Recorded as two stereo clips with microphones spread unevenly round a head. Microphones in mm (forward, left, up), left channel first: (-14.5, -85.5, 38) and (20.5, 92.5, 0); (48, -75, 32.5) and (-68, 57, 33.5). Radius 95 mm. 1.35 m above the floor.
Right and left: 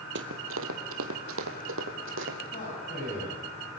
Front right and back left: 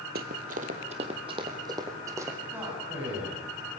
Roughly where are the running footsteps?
Left.